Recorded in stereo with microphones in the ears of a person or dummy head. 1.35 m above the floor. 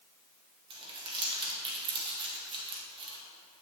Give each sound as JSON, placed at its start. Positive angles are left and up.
{"t": 0.7, "sound": "crumpling", "side_deg": -30, "distance_m": 1.6}